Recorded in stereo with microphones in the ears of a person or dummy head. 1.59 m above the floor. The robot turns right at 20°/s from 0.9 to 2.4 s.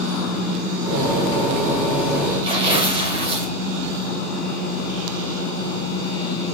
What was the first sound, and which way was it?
Tearing paper, 35° right (ahead or behind).